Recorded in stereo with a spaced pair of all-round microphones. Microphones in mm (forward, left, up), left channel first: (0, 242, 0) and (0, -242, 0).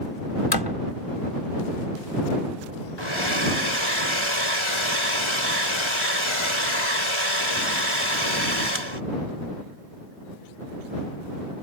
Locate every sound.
0.5 s a door slam: 60° left (ahead or behind)
3.0 s a hair dryer: 85° left